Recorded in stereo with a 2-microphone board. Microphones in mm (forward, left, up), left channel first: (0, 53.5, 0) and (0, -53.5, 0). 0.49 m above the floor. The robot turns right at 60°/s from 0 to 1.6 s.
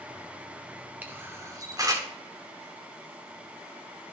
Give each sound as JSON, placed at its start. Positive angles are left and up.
{"t": 1.0, "sound": "a camera shutter", "side_deg": -15, "distance_m": 1.2}